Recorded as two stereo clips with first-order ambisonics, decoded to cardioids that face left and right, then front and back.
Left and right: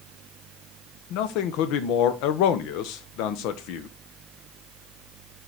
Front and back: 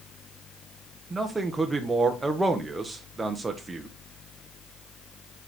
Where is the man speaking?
100° left, 1.0 m.